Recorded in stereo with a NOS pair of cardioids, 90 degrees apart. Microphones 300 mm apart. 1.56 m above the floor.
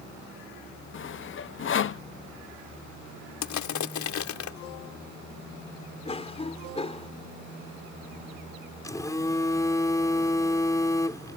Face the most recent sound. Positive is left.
turn(degrees=10)